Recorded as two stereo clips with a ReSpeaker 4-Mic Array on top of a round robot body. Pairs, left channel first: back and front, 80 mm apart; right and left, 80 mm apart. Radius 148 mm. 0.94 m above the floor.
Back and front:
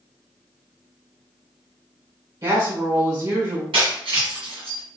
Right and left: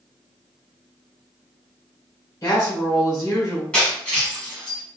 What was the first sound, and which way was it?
A woman speaking, 40° right.